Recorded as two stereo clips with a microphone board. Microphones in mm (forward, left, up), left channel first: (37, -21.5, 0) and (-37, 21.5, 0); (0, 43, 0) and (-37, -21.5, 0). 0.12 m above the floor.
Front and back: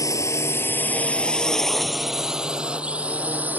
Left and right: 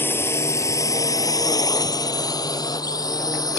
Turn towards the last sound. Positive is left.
turn(degrees=80)